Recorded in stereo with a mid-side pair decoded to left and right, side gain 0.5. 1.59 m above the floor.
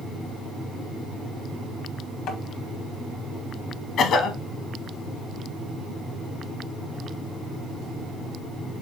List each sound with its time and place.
2.3 s tapping: 70° left, 1.4 m
4.0 s a cough: 65° left, 1.4 m